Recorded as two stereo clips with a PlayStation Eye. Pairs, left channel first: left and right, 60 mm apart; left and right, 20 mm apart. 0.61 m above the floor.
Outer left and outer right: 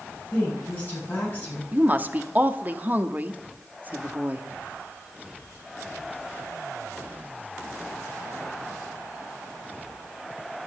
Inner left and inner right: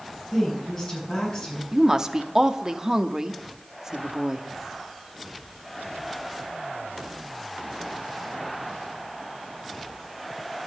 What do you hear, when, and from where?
0.3 s a woman speaking: 30° left (ahead or behind), 6 m
1.7 s a woman speaking: 30° right (ahead or behind), 0.7 m